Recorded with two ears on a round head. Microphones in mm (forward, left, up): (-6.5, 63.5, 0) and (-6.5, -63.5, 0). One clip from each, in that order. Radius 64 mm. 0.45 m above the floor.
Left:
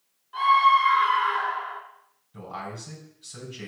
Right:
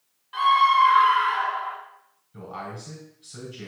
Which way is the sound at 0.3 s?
65° right (ahead or behind).